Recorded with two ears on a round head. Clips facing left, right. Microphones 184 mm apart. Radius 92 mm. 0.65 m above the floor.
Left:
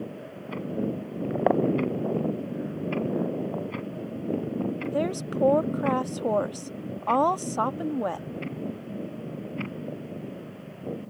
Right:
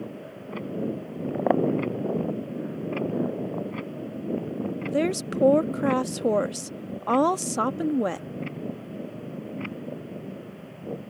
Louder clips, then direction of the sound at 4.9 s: Right 3 dB; 30° right (ahead or behind).